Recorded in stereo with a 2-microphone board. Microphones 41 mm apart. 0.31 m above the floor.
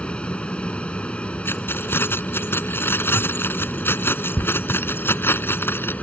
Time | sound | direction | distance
0.0 | an aircraft | 25° left (ahead or behind) | ?
1.4 | keys jangling | 70° left (ahead or behind) | ?